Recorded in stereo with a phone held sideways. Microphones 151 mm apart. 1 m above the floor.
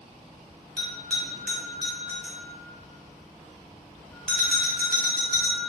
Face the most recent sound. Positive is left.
turn(degrees=5)  # may be behind; listen again after turning